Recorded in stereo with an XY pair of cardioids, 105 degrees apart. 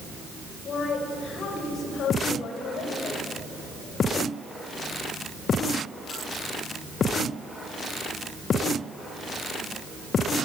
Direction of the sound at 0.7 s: 60° left.